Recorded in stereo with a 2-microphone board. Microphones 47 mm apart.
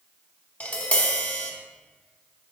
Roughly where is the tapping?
Left.